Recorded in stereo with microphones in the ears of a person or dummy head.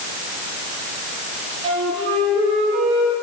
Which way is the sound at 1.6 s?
25° right (ahead or behind).